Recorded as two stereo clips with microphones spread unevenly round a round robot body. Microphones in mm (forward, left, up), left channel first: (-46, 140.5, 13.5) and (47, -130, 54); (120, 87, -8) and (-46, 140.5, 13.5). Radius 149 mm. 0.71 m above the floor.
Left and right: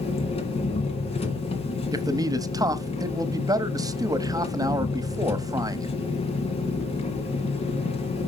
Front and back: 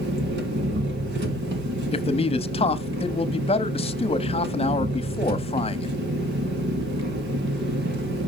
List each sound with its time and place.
0.0 s an engine running: straight behind, 1.7 m
1.9 s a man speaking: 10° left, 0.9 m